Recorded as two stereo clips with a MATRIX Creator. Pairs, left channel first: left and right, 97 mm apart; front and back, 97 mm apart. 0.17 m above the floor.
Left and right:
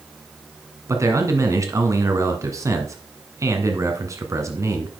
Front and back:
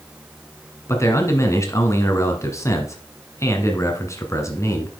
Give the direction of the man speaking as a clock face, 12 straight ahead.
2 o'clock.